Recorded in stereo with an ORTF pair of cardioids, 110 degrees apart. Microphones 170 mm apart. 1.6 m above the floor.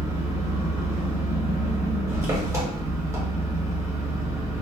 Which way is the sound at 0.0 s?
20° right.